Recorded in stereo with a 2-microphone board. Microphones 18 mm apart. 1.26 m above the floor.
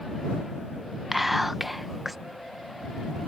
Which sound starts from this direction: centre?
Whispering, at 1.1 s.